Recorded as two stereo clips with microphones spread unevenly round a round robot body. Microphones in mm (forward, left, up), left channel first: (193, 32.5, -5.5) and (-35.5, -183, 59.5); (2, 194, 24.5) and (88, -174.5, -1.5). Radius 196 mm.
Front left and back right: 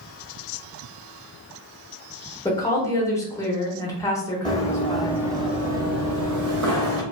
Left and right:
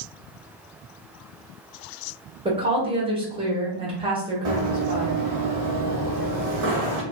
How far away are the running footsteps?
About 1.0 m.